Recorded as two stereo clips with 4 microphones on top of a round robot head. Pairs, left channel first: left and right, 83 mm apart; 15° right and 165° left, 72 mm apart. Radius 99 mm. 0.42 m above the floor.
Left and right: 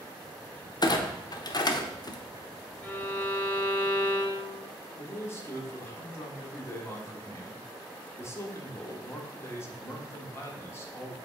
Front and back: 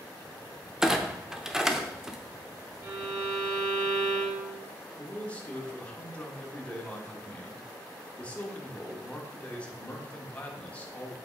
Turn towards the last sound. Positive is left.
turn(degrees=50)